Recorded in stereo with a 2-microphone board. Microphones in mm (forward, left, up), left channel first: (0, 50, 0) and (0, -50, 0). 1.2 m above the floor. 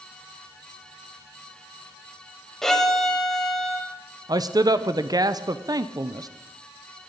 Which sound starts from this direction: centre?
A violin, at 2.6 s.